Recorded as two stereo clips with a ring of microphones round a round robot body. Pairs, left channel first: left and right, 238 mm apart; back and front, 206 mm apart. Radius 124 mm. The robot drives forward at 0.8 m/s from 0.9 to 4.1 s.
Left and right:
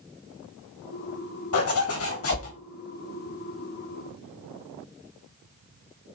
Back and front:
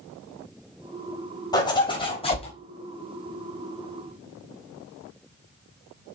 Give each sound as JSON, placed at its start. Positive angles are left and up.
{"t": 1.5, "sound": "a zipper", "azimuth_deg": 110, "distance_m": 4.0}